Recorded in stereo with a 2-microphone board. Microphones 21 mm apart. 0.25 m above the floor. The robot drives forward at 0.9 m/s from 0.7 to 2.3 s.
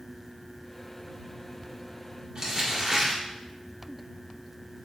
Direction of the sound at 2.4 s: 30° right (ahead or behind).